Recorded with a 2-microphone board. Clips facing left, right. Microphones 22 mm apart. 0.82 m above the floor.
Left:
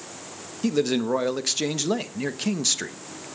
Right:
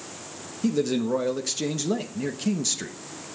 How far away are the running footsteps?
No running footsteps in this recording.